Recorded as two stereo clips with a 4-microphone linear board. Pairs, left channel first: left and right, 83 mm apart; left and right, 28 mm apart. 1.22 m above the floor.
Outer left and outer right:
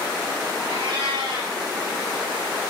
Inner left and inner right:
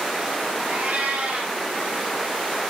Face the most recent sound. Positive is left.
turn(degrees=-80)